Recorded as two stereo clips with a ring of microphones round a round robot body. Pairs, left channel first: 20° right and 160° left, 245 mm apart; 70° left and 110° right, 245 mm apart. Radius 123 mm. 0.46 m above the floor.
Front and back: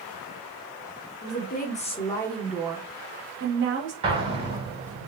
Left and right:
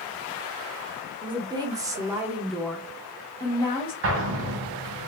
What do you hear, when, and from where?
1.2 s a woman speaking: 50° right, 1.0 m; by 3.9 s 135° left, 1.1 m
4.0 s an explosion: 135° right, 1.0 m